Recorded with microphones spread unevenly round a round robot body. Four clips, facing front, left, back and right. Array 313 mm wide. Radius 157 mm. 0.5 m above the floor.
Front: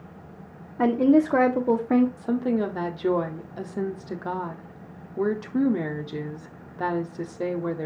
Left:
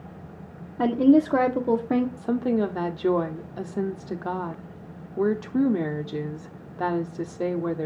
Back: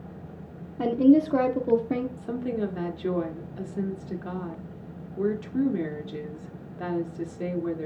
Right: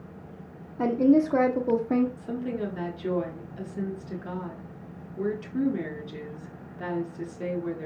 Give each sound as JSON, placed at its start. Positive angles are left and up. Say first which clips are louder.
{"t": 0.8, "sound": "a woman speaking", "louder": "left 3 dB, even", "azimuth_deg": 90, "distance_m": 1.2}
{"t": 2.2, "sound": "a woman speaking", "louder": "left 7 dB, front 5 dB", "azimuth_deg": 75, "distance_m": 1.1}